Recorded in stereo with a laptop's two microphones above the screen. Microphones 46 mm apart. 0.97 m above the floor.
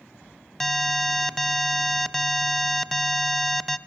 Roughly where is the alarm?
Centre.